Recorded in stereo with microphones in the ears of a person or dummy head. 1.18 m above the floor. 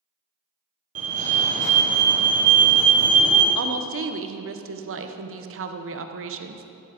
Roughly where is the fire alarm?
Right.